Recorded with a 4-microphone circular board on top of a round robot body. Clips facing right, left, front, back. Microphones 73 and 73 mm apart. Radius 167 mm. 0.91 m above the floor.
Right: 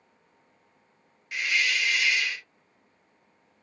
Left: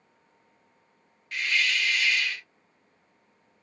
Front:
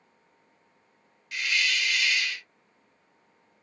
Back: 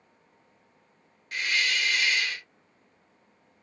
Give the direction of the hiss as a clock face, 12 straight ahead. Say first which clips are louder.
Even, even; 5 o'clock.